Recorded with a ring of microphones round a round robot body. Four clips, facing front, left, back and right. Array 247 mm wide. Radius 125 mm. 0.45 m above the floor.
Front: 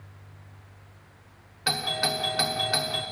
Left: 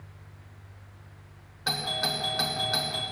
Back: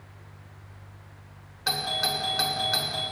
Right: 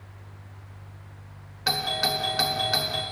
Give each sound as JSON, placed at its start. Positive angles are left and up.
{"t": 1.7, "sound": "a doorbell", "azimuth_deg": -35, "distance_m": 1.2}